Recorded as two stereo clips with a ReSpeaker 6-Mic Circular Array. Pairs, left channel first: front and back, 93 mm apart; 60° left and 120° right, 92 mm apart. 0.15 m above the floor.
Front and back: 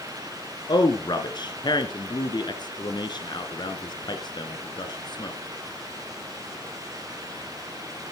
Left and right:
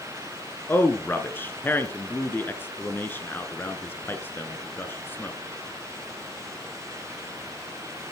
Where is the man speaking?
Straight ahead, 1.6 m.